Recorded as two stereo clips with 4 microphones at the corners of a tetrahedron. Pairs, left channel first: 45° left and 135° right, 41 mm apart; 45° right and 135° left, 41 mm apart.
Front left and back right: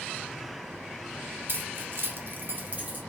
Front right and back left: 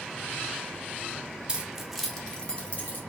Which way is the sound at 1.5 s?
155° right.